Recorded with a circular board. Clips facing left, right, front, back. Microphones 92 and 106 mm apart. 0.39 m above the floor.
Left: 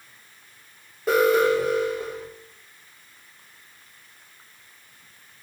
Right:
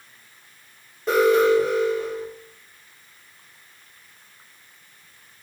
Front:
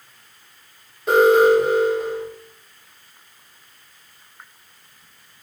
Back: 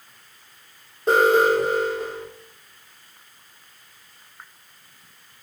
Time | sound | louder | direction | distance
1.1 | an alarm | right 2 dB, front 4 dB | 170° left | 2 m